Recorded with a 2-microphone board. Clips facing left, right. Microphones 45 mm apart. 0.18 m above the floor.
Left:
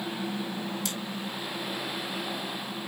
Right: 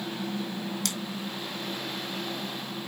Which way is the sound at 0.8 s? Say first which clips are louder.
Right 1 dB; 60° right (ahead or behind).